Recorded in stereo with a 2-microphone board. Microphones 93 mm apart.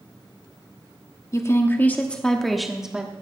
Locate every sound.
1.3 s a woman speaking: 35° left (ahead or behind), 1.1 m; by 3.1 s 10° right (ahead or behind), 1.2 m